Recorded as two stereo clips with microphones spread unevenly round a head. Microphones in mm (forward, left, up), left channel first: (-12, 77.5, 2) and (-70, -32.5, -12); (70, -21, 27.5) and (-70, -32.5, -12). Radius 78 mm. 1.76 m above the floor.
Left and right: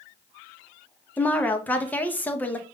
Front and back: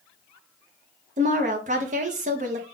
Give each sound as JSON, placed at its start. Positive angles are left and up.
{"t": 1.2, "sound": "a woman speaking", "azimuth_deg": 135, "distance_m": 0.8}